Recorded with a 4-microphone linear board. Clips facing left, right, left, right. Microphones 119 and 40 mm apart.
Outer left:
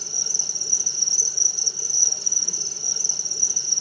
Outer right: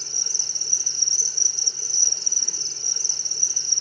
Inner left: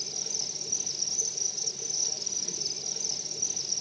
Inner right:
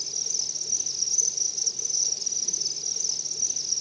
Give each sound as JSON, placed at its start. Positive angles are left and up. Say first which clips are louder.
{"t": 0.0, "sound": "an insect", "louder": "outer left 3 dB, inner right 1 dB", "side_deg": 10, "distance_m": 2.5}